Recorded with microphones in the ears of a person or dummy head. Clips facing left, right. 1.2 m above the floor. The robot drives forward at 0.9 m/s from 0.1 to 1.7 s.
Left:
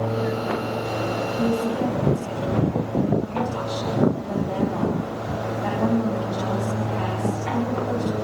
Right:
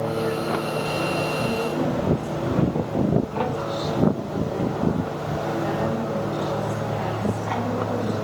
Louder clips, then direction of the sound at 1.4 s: Left 2 dB; 65° left (ahead or behind).